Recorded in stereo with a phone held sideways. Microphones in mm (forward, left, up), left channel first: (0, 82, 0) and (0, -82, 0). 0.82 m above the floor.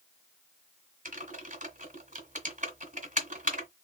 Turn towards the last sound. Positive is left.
turn(degrees=-55)  # may be behind; listen again after turning